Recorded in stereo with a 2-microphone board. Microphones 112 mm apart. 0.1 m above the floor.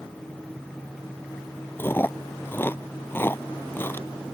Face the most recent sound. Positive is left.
turn(degrees=20)  # may be behind; listen again after turning